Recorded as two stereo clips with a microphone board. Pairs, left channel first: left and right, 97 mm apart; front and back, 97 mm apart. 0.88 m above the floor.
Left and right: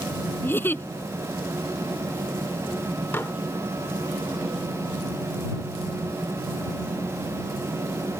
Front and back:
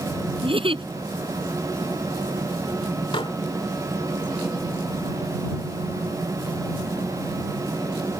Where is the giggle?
160° left.